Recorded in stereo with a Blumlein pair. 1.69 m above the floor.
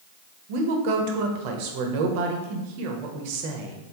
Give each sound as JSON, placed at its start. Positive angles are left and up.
{"t": 0.5, "sound": "a woman speaking", "azimuth_deg": -45, "distance_m": 0.8}